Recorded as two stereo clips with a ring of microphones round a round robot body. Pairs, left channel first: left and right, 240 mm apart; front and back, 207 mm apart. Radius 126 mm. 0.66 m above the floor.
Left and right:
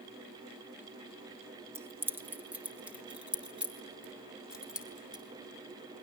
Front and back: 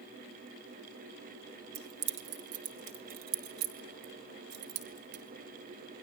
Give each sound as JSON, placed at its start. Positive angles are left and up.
{"t": 1.8, "sound": "keys jangling", "azimuth_deg": -170, "distance_m": 1.3}